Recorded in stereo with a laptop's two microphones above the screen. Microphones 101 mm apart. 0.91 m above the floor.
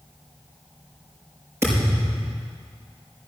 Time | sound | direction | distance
1.6 | a thud | 30° right (ahead or behind) | 5.5 m